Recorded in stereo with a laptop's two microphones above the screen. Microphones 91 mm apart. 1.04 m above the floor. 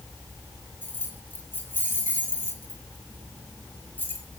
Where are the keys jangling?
20° left (ahead or behind), 1.8 m.